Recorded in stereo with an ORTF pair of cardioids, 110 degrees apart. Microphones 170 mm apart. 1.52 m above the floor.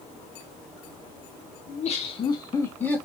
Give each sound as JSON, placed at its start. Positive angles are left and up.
{"t": 1.7, "sound": "laughter", "azimuth_deg": 50, "distance_m": 1.4}